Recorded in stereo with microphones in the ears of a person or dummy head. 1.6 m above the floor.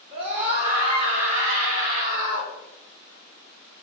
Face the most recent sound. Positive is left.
turn(degrees=-35)  # may be behind; listen again after turning